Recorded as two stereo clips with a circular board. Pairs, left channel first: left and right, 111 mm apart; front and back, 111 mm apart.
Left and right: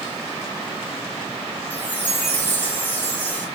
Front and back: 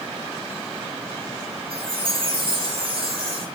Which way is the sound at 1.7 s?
160° left.